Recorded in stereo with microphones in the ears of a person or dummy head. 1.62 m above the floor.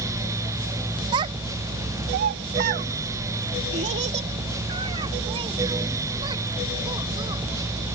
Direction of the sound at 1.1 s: 30° right (ahead or behind).